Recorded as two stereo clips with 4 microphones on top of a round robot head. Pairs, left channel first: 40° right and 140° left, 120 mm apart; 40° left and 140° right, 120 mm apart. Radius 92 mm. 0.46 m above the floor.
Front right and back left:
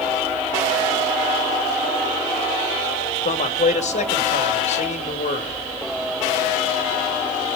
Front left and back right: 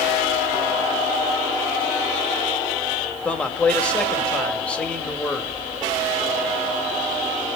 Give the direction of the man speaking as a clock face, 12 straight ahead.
1 o'clock.